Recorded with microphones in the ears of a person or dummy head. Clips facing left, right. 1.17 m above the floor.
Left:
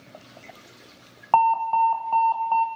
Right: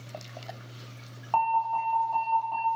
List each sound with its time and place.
1.3 s an alarm: 80° left, 0.6 m